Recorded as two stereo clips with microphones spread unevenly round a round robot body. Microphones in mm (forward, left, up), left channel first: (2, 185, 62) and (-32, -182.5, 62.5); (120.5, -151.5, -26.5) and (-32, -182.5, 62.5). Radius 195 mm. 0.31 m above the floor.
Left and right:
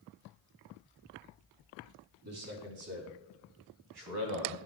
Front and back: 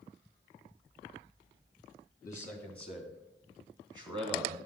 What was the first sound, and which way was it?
A man speaking, 45° right.